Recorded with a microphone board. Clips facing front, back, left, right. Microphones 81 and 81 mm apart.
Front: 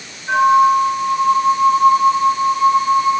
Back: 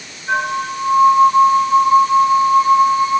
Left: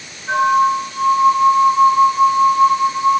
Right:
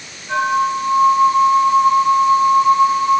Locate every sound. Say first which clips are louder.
0.3 s a flute: front 9 dB, left 3 dB; 85° left, 9 m